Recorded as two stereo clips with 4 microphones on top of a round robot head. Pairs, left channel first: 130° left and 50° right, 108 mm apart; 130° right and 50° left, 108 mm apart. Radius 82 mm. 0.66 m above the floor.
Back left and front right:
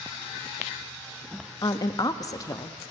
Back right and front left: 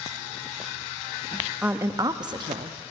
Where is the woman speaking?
120° left, 0.5 m; by 2.8 s 70° left, 0.9 m.